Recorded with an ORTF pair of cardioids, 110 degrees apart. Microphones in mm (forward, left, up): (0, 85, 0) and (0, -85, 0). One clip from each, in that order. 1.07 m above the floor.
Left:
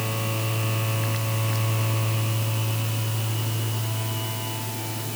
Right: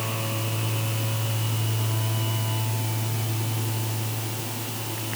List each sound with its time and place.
Only background noise.